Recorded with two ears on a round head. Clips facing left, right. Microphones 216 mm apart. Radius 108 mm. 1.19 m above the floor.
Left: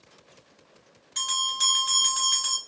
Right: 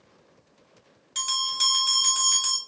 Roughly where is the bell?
Right.